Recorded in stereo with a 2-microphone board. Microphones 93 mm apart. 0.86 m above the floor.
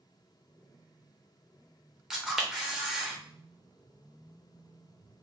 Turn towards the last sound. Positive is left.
turn(degrees=-5)  # may be behind; listen again after turning